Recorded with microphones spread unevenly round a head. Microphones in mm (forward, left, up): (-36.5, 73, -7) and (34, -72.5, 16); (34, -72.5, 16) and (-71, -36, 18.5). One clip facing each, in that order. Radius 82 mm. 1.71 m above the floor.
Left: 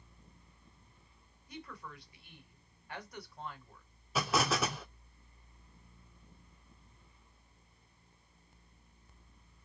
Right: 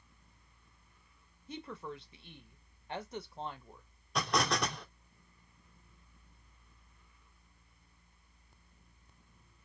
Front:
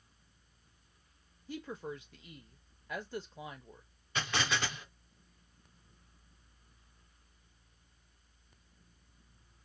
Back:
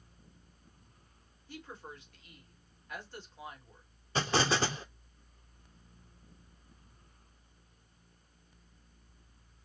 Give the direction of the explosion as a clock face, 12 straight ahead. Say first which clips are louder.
Left 1 dB, back 5 dB; 5 o'clock.